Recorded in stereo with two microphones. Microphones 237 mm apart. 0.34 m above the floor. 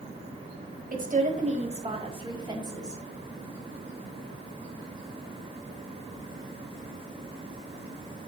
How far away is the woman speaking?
About 1.5 m.